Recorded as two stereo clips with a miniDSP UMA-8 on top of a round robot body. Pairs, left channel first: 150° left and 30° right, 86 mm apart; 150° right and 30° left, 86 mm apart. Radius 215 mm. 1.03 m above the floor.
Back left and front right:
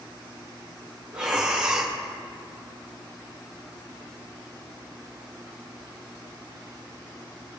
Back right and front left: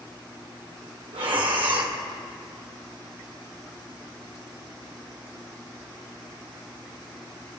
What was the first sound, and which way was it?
Breathing, 50° left.